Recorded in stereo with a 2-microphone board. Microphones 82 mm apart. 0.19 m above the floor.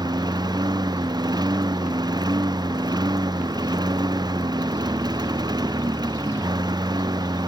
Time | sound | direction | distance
0.0 | a lawn mower | 60° right (ahead or behind) | ?